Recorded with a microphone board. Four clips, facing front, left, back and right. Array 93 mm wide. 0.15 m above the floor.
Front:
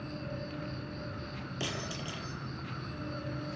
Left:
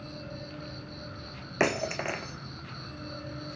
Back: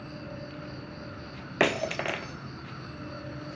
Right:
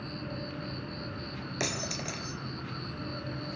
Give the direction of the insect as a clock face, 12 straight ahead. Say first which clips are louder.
Right 3 dB, even; 3 o'clock.